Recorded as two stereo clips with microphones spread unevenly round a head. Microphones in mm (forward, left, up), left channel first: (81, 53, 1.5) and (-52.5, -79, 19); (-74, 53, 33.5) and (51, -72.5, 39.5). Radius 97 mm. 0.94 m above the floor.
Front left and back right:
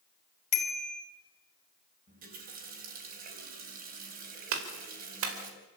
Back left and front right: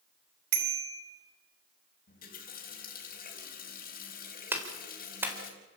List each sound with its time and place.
0.5 s a bicycle bell: 10° right, 4 m
2.1 s a running tap: 175° left, 4.5 m
4.5 s a clap: 125° right, 4 m